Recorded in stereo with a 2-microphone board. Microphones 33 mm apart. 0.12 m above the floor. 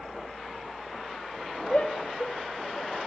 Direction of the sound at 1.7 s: 35° left (ahead or behind).